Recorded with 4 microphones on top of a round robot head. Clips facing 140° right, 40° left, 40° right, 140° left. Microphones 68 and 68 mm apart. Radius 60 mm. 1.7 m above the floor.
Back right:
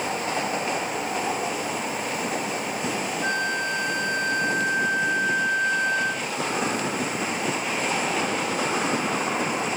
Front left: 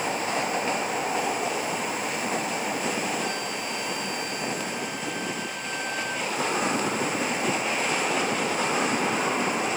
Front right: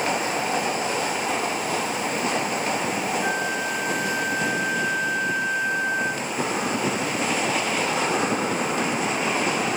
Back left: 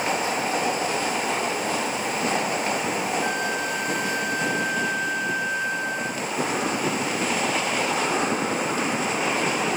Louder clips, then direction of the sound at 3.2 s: Back right 5 dB, front right 1 dB; 160° left.